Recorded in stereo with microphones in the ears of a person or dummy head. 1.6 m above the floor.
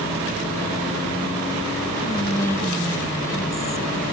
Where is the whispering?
15° left (ahead or behind), 0.8 m.